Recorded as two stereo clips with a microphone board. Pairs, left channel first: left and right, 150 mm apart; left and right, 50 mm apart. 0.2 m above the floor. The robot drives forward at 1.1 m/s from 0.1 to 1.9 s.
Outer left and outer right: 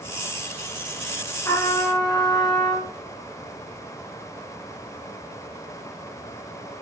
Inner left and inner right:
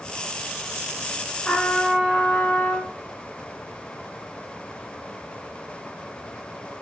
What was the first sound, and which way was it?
A trumpet, 20° left (ahead or behind).